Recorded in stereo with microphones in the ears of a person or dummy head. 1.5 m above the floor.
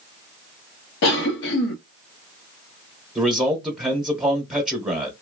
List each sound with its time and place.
1.0 s a cough: 65° left (ahead or behind), 0.7 m
3.1 s a man speaking: 5° right (ahead or behind), 0.9 m